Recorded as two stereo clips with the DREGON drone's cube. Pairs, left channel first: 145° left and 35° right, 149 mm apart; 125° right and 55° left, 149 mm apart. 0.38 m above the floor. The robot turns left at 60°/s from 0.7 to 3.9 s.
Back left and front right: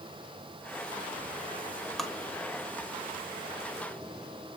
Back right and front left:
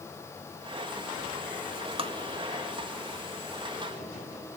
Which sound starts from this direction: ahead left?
Tapping, at 2.0 s.